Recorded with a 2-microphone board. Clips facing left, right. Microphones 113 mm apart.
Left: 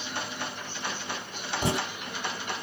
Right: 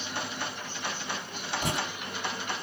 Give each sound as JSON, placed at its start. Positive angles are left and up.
{"t": 1.6, "sound": "writing", "side_deg": 30, "distance_m": 0.7}